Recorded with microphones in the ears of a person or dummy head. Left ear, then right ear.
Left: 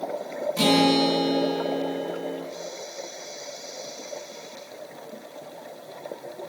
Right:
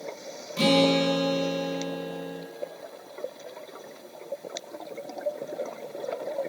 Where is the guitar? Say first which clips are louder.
Left 1 dB; 5° left (ahead or behind), 1.2 m.